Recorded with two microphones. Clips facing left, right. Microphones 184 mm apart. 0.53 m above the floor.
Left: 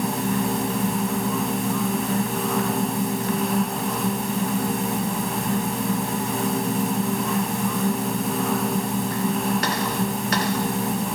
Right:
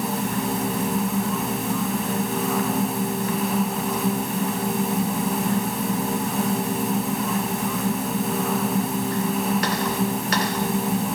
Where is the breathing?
No breathing in this recording.